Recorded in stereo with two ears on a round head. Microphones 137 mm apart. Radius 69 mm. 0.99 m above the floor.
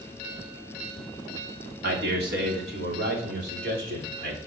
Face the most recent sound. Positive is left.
turn(degrees=-75)  # may be behind; listen again after turning